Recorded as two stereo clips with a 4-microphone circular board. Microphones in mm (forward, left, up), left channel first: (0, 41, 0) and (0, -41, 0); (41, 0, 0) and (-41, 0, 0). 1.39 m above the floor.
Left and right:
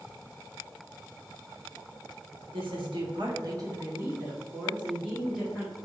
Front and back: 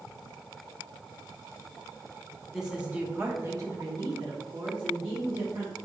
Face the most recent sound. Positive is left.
turn(degrees=-175)